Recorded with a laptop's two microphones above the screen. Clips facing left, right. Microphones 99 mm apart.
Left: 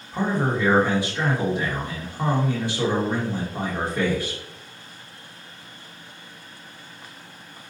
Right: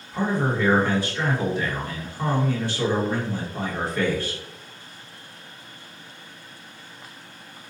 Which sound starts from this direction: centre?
A man speaking, at 0.1 s.